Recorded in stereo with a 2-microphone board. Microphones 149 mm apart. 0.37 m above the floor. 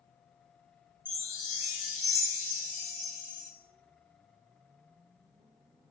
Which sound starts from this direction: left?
A chime, at 1.1 s.